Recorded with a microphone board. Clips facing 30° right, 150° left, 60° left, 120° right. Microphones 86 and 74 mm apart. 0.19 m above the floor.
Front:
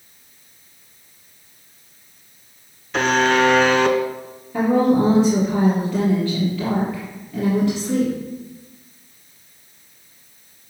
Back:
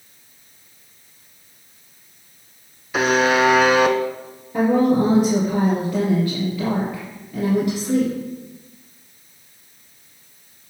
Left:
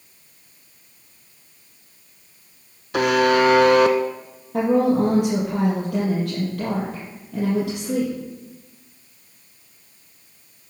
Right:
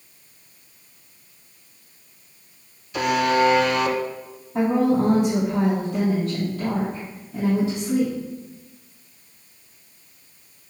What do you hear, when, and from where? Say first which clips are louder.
2.9 s a buzzer: even, left 3 dB; 70° left, 0.8 m
4.5 s a woman speaking: even, left 2 dB; 75° left, 4 m